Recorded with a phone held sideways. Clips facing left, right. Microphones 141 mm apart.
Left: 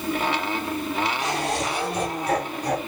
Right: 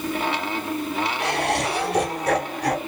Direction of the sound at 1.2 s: 65° right (ahead or behind).